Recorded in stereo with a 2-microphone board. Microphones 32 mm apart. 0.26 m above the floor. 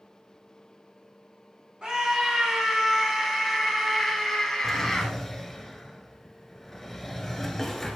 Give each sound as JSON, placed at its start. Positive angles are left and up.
{"t": 1.8, "sound": "a scream", "side_deg": -25, "distance_m": 2.5}
{"t": 4.6, "sound": "a drawer", "side_deg": 5, "distance_m": 1.3}